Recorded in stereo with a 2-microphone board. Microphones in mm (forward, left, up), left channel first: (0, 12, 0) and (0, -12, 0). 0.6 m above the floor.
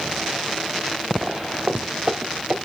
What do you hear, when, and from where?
1.2 s footsteps: 35° right (ahead or behind), 1.0 m; by 2.5 s 40° right (ahead or behind), 2.5 m